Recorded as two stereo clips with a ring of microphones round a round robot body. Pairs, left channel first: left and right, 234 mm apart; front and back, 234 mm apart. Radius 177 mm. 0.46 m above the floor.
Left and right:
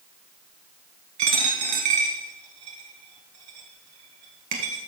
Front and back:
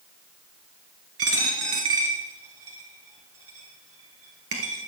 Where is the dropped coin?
130° right, 1.1 m.